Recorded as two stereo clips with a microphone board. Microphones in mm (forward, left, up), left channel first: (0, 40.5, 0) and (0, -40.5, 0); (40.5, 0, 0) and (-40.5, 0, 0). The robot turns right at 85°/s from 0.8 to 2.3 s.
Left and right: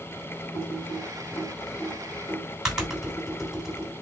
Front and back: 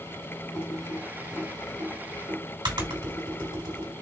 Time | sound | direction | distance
0.5 | typing on a keyboard | 60° left | 2.5 m